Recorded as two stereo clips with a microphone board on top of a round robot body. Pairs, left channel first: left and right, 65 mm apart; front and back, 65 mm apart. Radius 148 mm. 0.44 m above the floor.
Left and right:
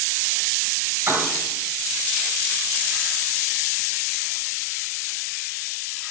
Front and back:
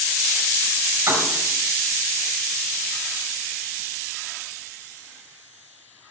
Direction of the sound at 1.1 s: 150° right.